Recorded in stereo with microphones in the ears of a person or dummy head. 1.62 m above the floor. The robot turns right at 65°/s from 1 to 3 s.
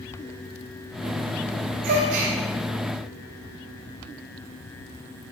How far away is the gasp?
About 2.5 m.